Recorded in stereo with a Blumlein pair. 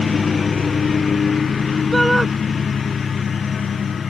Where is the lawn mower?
15° left; by 4.1 s 20° left.